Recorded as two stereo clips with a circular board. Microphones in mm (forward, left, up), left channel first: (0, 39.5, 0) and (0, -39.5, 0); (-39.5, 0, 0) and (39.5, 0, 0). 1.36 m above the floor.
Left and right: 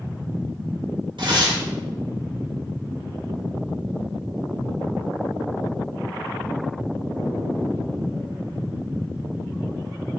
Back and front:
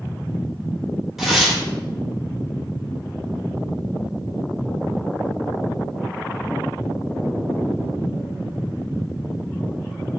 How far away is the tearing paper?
About 5 m.